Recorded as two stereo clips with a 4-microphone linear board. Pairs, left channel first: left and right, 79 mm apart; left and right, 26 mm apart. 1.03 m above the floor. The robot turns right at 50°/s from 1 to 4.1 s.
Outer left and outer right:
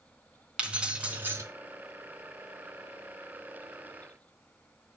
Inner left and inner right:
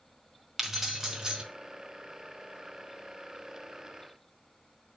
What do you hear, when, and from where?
0.6 s keys jangling: 15° right (ahead or behind), 1.4 m; by 1.4 s 35° right (ahead or behind), 1.4 m